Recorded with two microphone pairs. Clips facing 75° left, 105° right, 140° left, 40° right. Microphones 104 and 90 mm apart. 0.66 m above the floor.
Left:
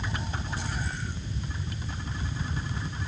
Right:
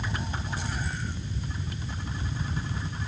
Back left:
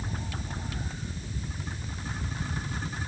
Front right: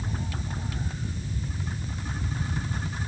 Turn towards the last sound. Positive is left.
No sound to turn to.